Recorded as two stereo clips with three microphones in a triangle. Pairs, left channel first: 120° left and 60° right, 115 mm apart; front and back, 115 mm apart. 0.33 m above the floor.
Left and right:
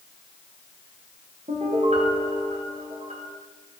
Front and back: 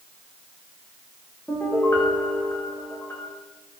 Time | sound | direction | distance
1.5 | a piano | 70° right | 9.5 m